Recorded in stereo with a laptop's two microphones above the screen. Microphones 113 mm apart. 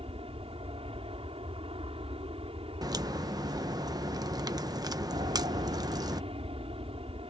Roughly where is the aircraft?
Right.